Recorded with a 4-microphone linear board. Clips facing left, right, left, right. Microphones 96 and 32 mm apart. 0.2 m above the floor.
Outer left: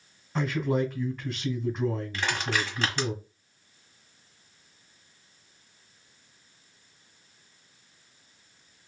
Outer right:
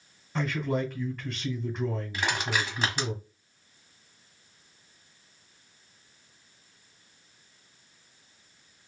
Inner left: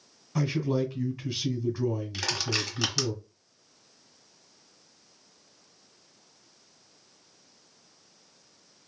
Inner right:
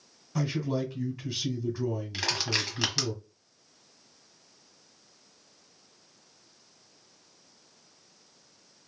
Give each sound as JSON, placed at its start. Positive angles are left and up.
{"t": 0.3, "sound": "a man speaking", "side_deg": 0, "distance_m": 1.7}
{"t": 2.1, "sound": "crushing", "side_deg": -15, "distance_m": 1.3}